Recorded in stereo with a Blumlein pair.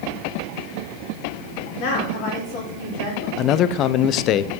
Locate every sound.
1.8 s a woman speaking: 40° left, 3.5 m
3.4 s a man speaking: 35° left, 0.6 m